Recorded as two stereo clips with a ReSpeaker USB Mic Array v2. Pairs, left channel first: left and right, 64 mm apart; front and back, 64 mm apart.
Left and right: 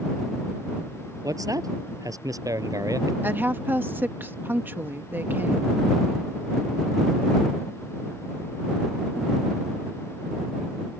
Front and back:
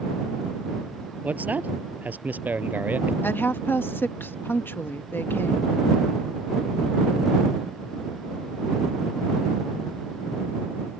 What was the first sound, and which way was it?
A man speaking, 115° right.